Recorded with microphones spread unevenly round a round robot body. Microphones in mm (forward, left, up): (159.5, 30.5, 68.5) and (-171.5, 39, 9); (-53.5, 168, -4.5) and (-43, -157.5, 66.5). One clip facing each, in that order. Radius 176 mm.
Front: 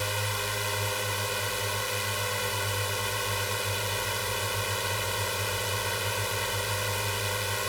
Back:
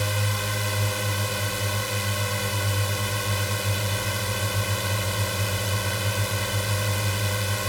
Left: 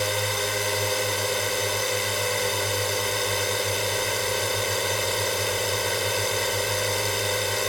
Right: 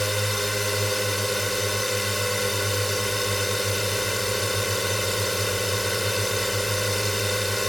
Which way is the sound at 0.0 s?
165° right.